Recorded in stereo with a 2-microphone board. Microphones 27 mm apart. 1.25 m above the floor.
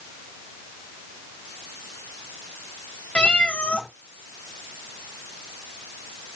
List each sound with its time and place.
3.1 s a cat meowing: 60° left (ahead or behind), 1.5 m